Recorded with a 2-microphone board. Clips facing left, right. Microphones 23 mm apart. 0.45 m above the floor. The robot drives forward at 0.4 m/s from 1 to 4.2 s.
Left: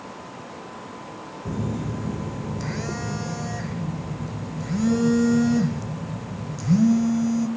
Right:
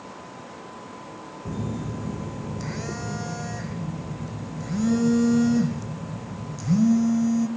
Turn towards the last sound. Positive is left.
turn(degrees=5)  # may be behind; listen again after turning